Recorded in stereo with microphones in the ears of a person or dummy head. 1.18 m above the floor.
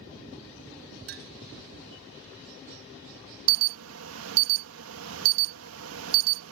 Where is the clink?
60° right (ahead or behind).